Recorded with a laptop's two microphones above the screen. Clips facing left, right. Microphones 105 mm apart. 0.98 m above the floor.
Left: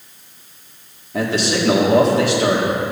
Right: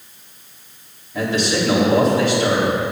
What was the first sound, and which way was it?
A man speaking, 70° left (ahead or behind).